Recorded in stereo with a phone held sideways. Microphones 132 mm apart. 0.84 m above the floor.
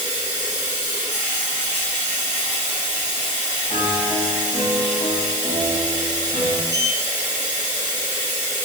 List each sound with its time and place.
0.0 s running water: 15° right (ahead or behind), 2.5 m
3.7 s a piano: 55° left (ahead or behind), 1.3 m
6.7 s a sliding door: 25° left (ahead or behind), 0.6 m